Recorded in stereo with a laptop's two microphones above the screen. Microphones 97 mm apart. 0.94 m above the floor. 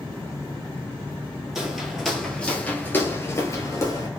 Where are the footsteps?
5° right (ahead or behind), 1.2 m; by 4.1 s 35° left (ahead or behind), 1.1 m.